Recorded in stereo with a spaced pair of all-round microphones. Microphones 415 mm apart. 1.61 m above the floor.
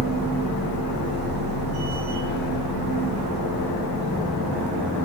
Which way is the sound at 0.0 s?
35° right (ahead or behind).